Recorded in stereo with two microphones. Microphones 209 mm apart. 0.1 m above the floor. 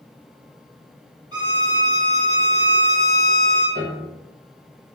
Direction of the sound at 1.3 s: 20° right (ahead or behind).